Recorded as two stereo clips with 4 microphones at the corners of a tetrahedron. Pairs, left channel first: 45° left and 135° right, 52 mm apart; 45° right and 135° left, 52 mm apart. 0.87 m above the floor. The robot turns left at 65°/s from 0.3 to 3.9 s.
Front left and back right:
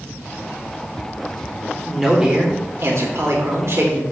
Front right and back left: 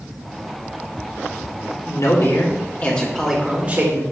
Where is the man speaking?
40° right, 3 m; by 4.0 s 170° right, 3 m.